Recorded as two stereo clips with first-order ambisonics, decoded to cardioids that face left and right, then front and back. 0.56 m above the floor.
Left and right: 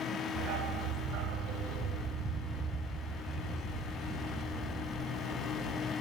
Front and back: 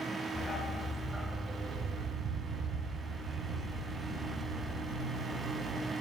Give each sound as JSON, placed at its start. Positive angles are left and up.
{"t": 0.3, "sound": "a dog barking", "azimuth_deg": -70, "distance_m": 1.3}